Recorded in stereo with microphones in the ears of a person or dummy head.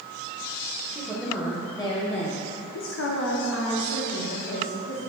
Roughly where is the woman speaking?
Centre.